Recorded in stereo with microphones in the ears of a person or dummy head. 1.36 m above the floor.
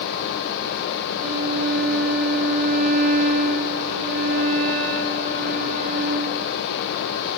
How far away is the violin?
About 2.0 m.